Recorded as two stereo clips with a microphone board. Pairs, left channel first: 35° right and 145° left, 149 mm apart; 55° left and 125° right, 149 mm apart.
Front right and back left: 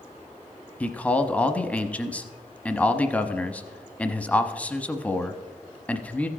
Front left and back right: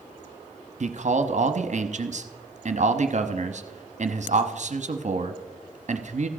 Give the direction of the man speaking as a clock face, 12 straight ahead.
4 o'clock.